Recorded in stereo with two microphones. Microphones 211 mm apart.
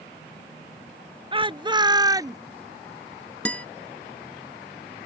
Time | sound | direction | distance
1.3 | a shout | 25° right (ahead or behind) | ?
3.5 | a guitar | 5° left (ahead or behind) | ?